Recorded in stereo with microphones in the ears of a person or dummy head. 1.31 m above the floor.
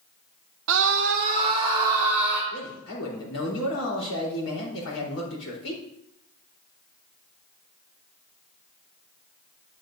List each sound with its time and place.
0.7 s a scream: 80° right, 0.9 m; by 2.4 s centre (ahead or behind), 2.5 m
2.5 s a man speaking: 75° left (ahead or behind), 4 m